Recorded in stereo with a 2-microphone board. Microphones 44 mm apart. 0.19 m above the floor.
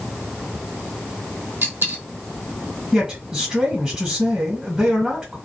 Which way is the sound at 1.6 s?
50° right (ahead or behind).